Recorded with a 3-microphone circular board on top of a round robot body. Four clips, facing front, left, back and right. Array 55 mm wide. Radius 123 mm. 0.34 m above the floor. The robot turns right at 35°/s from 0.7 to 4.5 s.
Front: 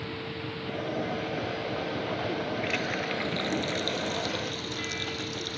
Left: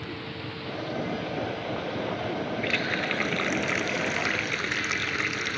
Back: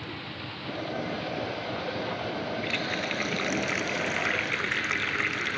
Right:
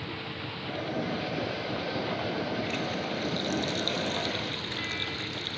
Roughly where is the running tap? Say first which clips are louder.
Left 4 dB, even; left.